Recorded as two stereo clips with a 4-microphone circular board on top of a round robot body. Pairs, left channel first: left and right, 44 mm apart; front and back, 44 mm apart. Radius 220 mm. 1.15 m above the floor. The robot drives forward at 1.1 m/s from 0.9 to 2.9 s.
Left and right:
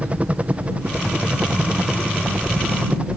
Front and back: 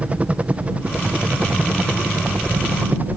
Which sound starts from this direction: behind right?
A helicopter, at 0.0 s.